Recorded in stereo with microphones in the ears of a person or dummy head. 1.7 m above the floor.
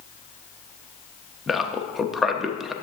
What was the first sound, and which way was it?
A man speaking, centre (ahead or behind).